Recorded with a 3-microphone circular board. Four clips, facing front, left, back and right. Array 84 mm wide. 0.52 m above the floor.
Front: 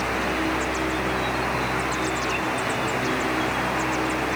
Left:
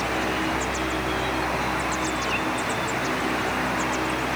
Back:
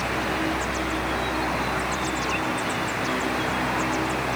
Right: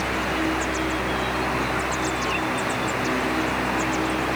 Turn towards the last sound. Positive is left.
No sound to turn to.